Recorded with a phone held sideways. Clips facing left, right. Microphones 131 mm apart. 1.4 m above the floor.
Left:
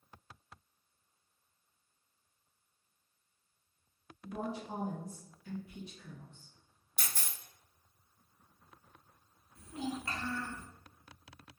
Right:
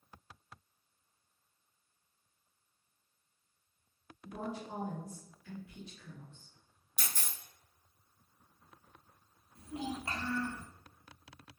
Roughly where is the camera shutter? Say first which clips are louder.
Even; left.